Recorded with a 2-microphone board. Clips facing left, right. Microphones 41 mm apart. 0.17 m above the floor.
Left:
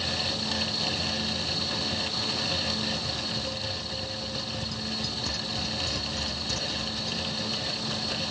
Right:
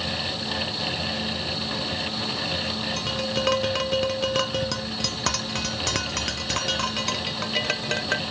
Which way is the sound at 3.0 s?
65° right (ahead or behind).